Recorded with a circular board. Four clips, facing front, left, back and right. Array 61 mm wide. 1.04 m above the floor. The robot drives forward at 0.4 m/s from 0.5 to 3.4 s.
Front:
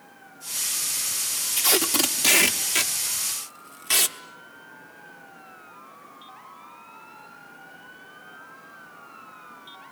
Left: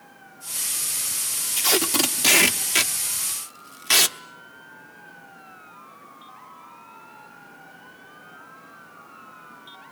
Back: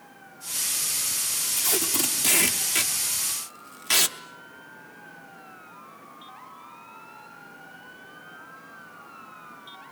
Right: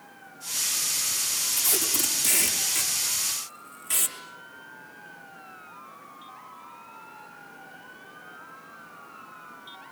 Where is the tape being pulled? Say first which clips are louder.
Left 10 dB, front 6 dB; 45° left, 1.0 m; by 4.2 s 100° left, 0.8 m.